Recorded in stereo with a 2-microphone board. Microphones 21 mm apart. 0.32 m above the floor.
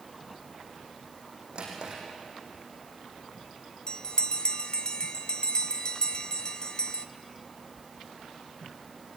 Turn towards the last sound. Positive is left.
turn(degrees=40)  # may be behind; listen again after turning